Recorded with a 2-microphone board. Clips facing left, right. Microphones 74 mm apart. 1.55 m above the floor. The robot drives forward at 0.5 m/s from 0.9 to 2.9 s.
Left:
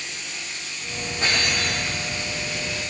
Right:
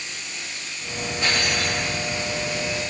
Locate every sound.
1.2 s cutlery clinking: 35° left (ahead or behind), 2.5 m; by 1.9 s 40° left (ahead or behind), 2 m